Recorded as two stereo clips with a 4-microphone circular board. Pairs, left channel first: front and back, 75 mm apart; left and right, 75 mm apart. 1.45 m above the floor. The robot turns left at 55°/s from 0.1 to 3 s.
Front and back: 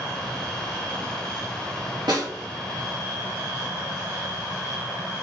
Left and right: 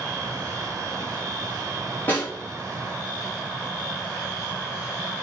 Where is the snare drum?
155° left, 3.5 m; by 2.3 s 140° left, 3.5 m.